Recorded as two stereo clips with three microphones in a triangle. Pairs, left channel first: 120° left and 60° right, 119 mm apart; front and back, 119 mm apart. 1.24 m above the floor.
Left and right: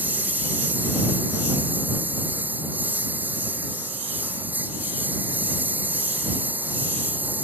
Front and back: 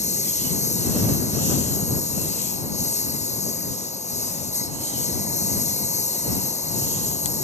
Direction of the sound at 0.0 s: 15° left.